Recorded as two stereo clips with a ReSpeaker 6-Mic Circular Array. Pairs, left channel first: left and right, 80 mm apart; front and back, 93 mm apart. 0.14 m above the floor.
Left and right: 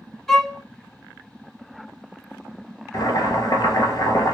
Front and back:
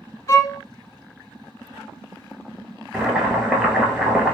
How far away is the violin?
About 0.7 m.